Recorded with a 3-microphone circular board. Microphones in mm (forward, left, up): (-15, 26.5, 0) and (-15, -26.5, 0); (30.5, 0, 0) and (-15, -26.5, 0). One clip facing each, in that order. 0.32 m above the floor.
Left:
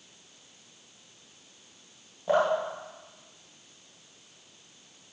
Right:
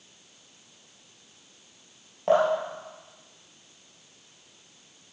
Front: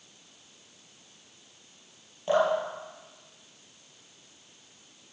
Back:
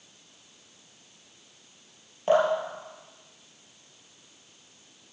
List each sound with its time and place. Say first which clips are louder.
2.3 s dripping: right 3 dB, back 2 dB; 95° right, 4 m